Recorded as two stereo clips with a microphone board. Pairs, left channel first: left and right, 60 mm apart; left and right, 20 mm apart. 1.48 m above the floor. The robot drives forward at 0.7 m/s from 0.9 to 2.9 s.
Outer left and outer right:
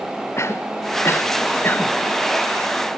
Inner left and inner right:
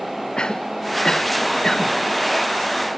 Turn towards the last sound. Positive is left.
turn(degrees=25)  # may be behind; listen again after turning